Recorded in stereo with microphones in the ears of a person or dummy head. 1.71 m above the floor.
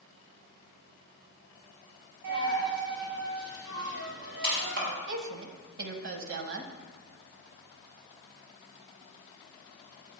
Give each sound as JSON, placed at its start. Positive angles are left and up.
{"t": 2.2, "sound": "a dropped coin", "side_deg": -65, "distance_m": 4.5}
{"t": 5.1, "sound": "a woman speaking", "side_deg": -75, "distance_m": 1.4}